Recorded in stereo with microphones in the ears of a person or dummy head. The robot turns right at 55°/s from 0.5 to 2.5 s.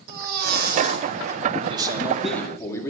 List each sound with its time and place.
0.1 s a baby crying: 70° right, 1.9 m; by 1.4 s 20° right, 1.9 m
1.6 s a man speaking: 45° right, 2.5 m; by 2.9 s 5° left, 2.5 m